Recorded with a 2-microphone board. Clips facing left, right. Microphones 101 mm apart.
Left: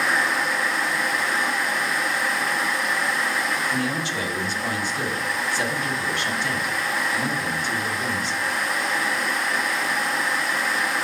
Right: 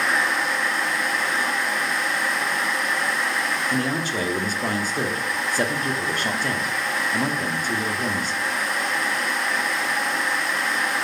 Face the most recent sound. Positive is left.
turn(degrees=-45)  # may be behind; listen again after turning